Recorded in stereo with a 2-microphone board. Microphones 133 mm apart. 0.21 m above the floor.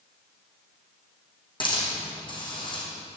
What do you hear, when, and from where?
1.6 s a hiss: 35° left (ahead or behind), 4 m